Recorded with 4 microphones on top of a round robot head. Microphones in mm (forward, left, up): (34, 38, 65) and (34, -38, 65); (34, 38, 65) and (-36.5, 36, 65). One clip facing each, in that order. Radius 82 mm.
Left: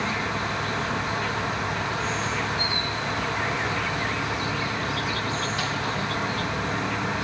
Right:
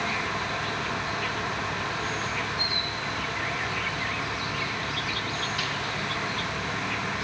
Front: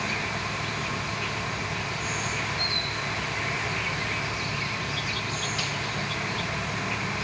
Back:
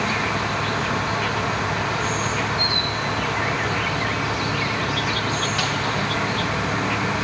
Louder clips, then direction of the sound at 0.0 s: Left 2 dB, back 8 dB; 150° left.